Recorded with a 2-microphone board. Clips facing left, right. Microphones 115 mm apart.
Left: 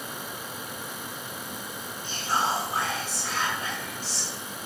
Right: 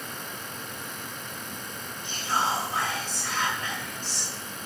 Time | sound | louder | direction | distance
2.0 | whispering | even | 35° left (ahead or behind) | 1.2 m